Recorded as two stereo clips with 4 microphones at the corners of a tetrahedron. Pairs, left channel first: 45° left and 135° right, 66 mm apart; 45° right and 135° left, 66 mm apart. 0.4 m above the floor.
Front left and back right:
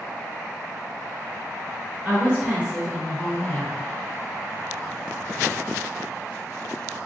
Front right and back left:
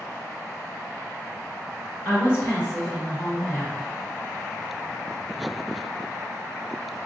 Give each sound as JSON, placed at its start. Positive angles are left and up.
{"t": 2.0, "sound": "a woman speaking", "azimuth_deg": -90, "distance_m": 1.8}